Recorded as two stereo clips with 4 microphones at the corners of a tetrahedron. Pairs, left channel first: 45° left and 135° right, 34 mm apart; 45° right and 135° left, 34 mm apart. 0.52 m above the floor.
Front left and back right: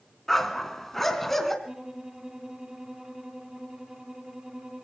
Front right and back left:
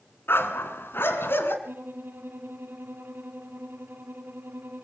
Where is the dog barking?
35° right, 2 m.